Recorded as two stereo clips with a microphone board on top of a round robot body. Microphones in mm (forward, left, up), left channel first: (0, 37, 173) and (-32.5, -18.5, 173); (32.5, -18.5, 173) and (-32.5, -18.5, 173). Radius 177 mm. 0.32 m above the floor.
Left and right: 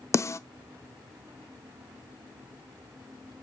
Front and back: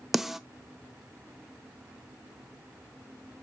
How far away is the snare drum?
About 0.5 m.